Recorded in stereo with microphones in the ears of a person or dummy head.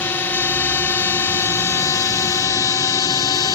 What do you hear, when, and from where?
0.0 s a drone: 10° left (ahead or behind); by 3.6 s 20° left (ahead or behind)